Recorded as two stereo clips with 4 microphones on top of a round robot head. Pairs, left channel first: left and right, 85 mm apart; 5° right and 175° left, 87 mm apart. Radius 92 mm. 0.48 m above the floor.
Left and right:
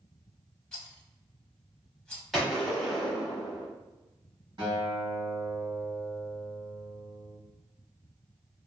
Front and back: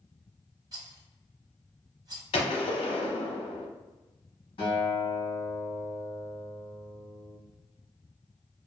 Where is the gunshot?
Straight ahead, 0.8 m.